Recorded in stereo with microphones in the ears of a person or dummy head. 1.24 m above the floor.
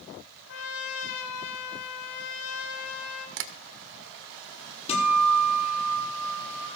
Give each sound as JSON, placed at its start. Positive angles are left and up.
{"t": 0.5, "sound": "a trumpet", "side_deg": 80, "distance_m": 2.0}
{"t": 3.4, "sound": "tapping", "side_deg": -60, "distance_m": 1.4}
{"t": 4.9, "sound": "a guitar", "side_deg": 35, "distance_m": 7.5}